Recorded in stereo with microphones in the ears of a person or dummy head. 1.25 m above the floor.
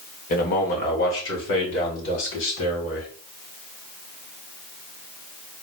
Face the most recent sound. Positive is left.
turn(degrees=80)